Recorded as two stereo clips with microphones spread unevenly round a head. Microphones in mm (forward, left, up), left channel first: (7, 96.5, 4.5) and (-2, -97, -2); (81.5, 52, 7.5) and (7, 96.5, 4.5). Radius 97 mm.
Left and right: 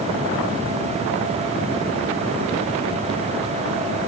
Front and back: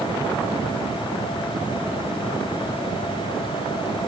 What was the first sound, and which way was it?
Only background noise.